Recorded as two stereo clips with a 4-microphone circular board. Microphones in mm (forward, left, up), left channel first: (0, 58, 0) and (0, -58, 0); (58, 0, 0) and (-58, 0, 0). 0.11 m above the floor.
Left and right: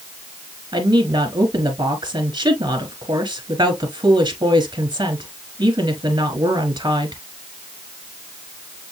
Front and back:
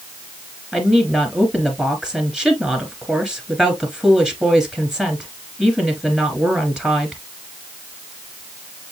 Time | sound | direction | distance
0.7 | a woman speaking | 100° right | 1.6 m